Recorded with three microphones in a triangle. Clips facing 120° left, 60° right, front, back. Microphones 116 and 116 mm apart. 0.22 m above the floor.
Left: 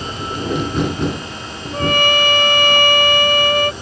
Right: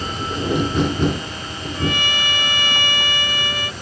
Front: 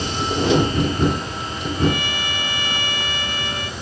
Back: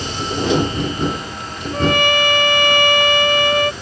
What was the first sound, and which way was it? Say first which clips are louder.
A trumpet: left 7 dB, back 6 dB; 155° left.